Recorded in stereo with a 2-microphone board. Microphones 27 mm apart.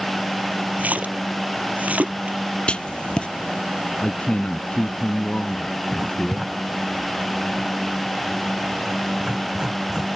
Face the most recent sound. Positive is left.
turn(degrees=-25)  # may be behind; listen again after turning